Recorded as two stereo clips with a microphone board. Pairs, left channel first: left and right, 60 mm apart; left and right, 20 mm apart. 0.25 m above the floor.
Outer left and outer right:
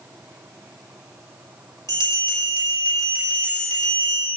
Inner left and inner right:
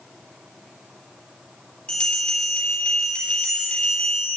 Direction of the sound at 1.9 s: 75° left (ahead or behind).